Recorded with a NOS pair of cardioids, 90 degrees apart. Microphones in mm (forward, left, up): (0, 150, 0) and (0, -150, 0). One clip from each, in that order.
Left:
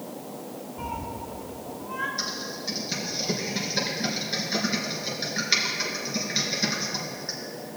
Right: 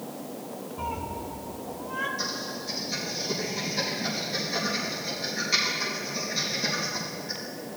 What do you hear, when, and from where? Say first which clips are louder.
0.8 s a cat meowing: right 1 dB; 5° right, 1.8 m; by 2.1 s 25° right, 1.3 m
2.2 s typing on a keyboard: left 1 dB; 70° left, 3.5 m